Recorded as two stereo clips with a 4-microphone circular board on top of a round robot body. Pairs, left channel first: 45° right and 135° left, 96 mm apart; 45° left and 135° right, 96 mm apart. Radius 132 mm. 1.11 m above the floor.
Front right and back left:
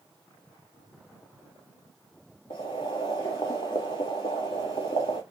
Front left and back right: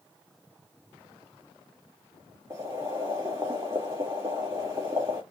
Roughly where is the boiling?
Right.